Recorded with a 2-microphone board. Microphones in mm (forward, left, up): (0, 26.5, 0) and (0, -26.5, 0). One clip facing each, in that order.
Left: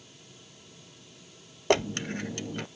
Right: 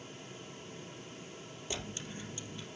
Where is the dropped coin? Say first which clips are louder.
Left 17 dB; 70° left (ahead or behind), 0.5 m.